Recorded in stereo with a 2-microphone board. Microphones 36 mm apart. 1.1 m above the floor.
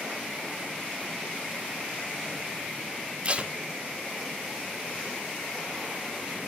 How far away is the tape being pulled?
About 0.9 m.